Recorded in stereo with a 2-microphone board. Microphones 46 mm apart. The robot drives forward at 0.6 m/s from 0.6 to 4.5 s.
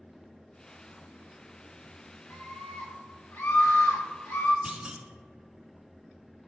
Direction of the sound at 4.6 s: 20° right (ahead or behind).